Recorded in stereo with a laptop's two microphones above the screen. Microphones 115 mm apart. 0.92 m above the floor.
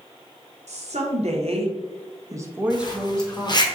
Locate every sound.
0.7 s a woman speaking: 75° right (ahead or behind), 1.3 m; by 3.7 s 20° left (ahead or behind), 1.1 m
2.7 s a zipper: 40° left (ahead or behind), 0.9 m